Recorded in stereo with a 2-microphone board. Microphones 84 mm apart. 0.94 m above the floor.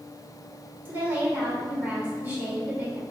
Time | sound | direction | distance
0.8 | a woman speaking | 25° right (ahead or behind) | 3 m